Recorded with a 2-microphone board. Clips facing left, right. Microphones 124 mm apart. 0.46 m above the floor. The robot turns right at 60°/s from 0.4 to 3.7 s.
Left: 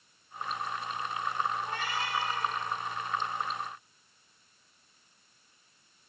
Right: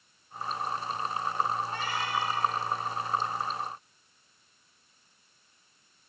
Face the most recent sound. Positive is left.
turn(degrees=-155)